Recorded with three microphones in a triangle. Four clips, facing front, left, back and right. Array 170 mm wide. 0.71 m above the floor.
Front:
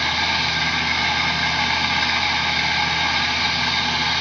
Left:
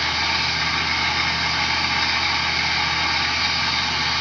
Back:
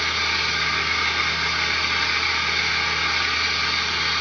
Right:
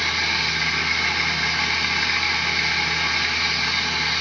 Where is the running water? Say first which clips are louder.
Left 2 dB, front 3 dB; 10° left, 4 m.